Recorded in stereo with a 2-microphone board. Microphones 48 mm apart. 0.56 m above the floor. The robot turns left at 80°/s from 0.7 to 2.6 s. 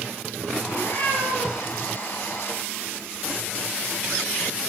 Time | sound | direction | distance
0.7 | a cat meowing | 160° left | 7 m